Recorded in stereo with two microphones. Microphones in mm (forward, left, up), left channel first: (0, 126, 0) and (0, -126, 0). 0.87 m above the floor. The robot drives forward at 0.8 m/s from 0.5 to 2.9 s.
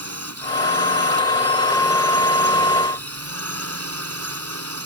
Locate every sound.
0.0 s a drone: 75° right (ahead or behind); by 4.8 s 70° right (ahead or behind)